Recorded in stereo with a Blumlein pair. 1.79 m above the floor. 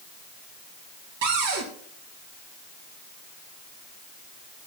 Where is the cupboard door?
50° right, 1.9 m.